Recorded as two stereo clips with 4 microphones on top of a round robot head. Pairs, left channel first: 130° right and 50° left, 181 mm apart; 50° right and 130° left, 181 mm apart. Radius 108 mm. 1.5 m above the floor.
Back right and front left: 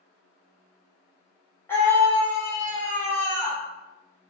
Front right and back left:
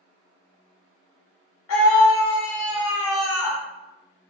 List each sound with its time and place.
1.7 s a scream: 50° right, 1.0 m